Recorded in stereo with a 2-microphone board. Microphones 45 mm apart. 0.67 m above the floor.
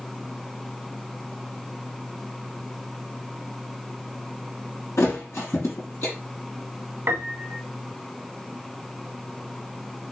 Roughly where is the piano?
Right.